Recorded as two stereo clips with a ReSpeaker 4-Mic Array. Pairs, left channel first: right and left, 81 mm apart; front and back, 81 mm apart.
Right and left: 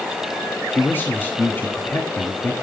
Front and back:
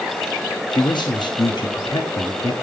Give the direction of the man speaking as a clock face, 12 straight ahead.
1 o'clock.